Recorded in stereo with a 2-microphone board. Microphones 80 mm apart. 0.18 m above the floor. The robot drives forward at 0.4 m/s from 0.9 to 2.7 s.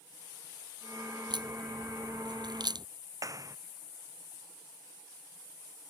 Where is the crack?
65° right (ahead or behind); by 2.9 s 60° right (ahead or behind).